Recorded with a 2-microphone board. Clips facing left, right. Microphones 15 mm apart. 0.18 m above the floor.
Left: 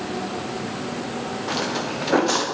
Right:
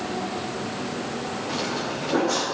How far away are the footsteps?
About 3 m.